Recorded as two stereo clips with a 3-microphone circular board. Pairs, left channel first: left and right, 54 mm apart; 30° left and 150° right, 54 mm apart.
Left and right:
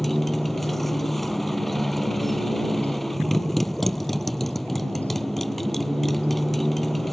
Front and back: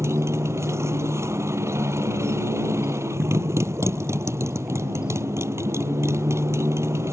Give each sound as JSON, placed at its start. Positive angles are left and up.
{"t": 0.0, "sound": "a motorcycle", "azimuth_deg": 180}